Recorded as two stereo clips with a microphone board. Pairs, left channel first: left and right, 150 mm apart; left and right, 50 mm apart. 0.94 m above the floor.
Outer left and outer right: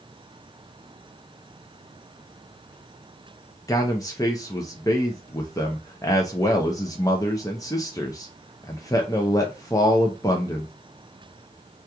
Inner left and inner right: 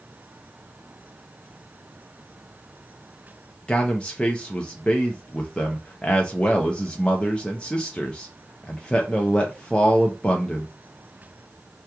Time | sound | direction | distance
3.7 | a man speaking | 20° left (ahead or behind) | 0.5 m